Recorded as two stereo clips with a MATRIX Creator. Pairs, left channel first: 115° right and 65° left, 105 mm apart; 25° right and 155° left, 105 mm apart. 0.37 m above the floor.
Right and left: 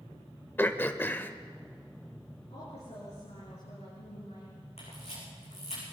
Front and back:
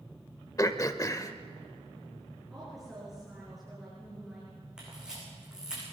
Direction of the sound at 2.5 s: 115° right.